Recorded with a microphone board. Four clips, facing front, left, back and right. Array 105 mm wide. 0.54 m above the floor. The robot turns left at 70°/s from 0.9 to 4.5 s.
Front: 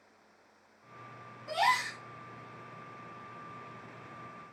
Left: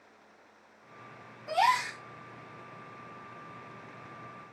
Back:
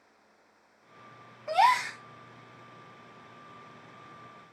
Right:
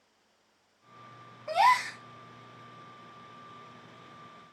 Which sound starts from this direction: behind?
A gasp, at 1.5 s.